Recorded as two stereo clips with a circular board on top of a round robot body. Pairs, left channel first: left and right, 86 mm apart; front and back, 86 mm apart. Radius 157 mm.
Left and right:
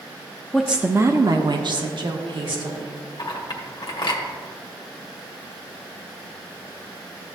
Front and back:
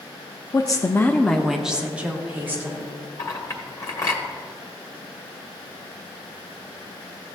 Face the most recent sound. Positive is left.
turn(degrees=50)